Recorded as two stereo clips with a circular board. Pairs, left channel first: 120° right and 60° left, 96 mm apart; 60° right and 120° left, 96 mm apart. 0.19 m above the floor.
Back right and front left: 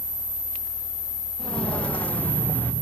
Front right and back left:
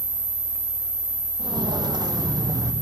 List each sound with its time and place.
1.4 s footsteps: 160° left, 6 m; by 2.7 s 170° left, 5 m